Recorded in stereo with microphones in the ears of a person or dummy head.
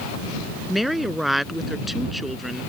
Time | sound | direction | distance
0.7 | a woman speaking | centre (ahead or behind) | ?